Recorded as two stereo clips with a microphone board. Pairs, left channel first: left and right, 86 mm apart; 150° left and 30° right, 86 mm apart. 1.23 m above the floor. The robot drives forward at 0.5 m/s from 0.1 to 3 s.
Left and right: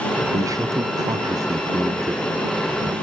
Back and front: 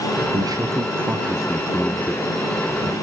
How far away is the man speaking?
About 0.7 m.